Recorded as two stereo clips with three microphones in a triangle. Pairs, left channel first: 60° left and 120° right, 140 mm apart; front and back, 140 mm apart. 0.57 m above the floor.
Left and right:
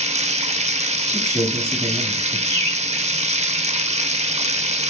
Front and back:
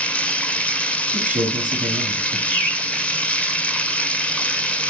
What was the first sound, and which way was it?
Running water, 80° right.